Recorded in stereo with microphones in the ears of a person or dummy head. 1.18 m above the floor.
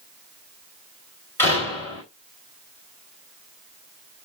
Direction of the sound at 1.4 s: 15° left (ahead or behind).